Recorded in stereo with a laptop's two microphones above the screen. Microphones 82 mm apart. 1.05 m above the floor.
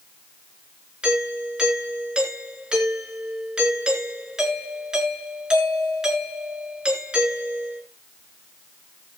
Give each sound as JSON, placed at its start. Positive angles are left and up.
{"t": 1.0, "sound": "a doorbell", "side_deg": -10, "distance_m": 4.0}